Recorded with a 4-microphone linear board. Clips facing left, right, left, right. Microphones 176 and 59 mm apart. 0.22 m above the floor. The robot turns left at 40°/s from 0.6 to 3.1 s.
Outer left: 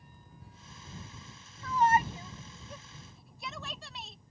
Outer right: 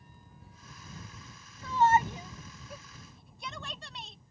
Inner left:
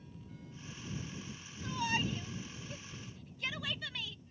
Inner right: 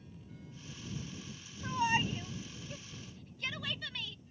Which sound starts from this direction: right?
A shout, at 1.6 s.